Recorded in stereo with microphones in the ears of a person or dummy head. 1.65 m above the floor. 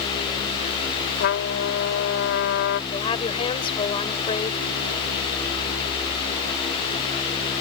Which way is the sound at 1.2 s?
60° left (ahead or behind).